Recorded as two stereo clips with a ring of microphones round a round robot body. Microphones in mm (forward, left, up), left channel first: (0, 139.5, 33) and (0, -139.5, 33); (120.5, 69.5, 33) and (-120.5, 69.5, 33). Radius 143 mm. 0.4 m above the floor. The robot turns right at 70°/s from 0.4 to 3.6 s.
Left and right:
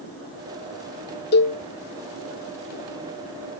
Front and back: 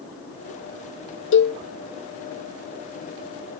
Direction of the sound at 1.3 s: 35° left.